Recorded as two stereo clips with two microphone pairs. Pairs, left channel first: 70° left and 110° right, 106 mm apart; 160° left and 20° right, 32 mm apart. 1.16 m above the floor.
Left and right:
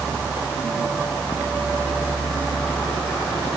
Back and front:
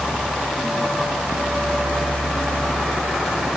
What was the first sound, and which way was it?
Only background noise.